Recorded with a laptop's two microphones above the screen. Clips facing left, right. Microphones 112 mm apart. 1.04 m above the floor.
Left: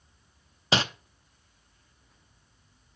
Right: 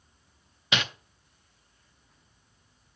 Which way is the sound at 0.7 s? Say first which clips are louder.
Left 4 dB; 35° left (ahead or behind).